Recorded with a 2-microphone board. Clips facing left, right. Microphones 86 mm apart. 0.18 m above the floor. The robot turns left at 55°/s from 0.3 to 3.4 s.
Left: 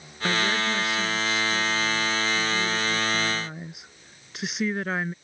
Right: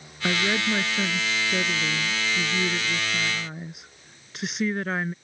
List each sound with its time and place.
0.2 s a woman speaking: 10° right; by 5.1 s straight behind